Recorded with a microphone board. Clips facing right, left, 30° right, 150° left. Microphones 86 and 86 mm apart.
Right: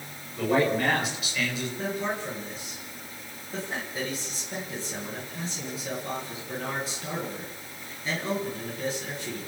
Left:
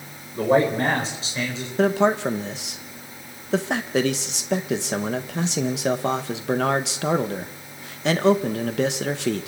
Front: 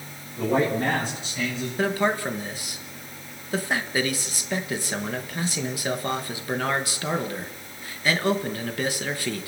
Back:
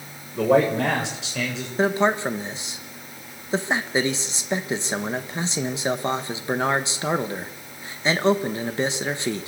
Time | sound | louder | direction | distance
0.3 | a man speaking | left 5 dB, back 4 dB | 140° left | 7 m
1.8 | a man speaking | left 14 dB, back 4 dB | 85° left | 1.8 m